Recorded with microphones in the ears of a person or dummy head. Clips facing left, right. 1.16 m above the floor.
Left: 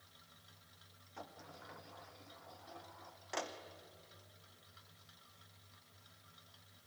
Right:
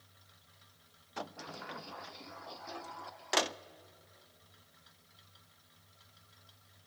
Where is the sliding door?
80° right, 0.6 m.